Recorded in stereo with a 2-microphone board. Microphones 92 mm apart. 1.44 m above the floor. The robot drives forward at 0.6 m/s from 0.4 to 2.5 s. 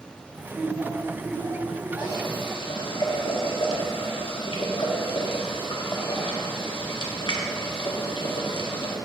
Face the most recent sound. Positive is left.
turn(degrees=70)  # may be behind; listen again after turning